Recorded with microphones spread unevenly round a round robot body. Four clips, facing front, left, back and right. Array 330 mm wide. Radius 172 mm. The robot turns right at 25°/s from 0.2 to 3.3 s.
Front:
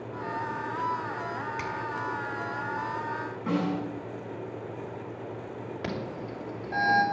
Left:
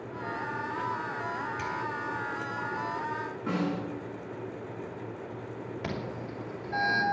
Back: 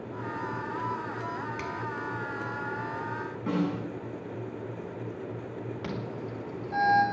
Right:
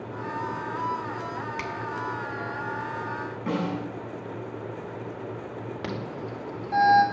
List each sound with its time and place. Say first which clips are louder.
1.6 s a finger snap: right 1 dB, front 2 dB; 100° right, 2 m; by 1.7 s 95° right, 2 m
3.5 s a snare drum: right 2 dB, front 1 dB; 100° right, 8 m
5.8 s an alarm: right 2 dB, front 4 dB; 55° right, 4.5 m